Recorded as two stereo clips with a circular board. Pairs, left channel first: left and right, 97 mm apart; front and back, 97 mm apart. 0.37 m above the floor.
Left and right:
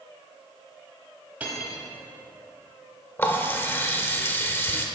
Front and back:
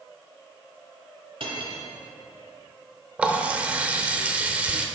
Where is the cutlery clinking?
165° right, 1.2 m.